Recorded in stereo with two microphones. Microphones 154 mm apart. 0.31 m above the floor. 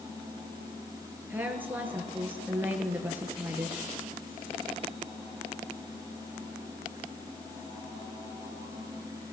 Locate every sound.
1.3 s a woman speaking: 10° right (ahead or behind), 4.5 m